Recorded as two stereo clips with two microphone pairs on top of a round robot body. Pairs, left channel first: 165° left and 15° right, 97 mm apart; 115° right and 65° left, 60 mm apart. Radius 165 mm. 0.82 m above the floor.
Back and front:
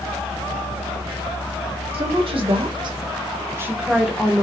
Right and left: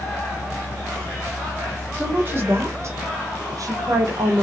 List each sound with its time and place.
1.9 s a woman speaking: straight ahead, 1.8 m; by 4.4 s 85° left, 1.3 m